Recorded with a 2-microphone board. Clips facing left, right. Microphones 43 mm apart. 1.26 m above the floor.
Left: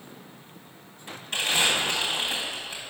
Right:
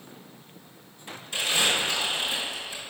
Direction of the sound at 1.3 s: 65° left (ahead or behind).